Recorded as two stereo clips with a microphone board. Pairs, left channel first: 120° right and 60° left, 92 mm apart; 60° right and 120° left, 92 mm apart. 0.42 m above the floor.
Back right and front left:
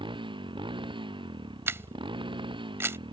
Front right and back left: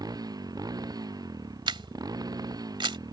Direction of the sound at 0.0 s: 75° left.